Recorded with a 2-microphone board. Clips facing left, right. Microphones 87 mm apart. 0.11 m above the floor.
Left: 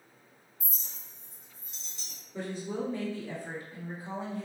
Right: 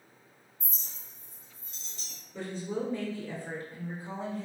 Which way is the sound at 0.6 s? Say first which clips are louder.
Even; 15° left (ahead or behind).